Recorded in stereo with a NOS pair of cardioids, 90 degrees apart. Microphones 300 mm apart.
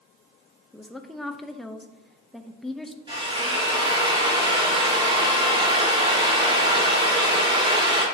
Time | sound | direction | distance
0.7 | a woman speaking | straight ahead | 0.9 m
3.1 | a drill | 20° right | 3 m